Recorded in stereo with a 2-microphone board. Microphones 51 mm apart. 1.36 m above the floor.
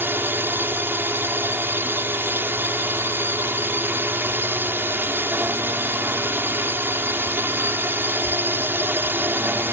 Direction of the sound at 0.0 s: 45° right (ahead or behind).